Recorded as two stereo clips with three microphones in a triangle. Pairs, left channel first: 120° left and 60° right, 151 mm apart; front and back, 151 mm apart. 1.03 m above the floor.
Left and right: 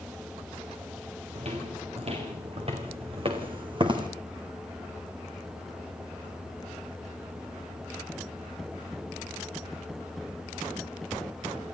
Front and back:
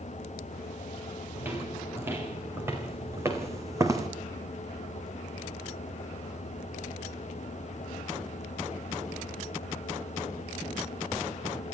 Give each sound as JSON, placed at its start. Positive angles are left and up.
{"t": 1.4, "sound": "footsteps", "azimuth_deg": -105, "distance_m": 4.5}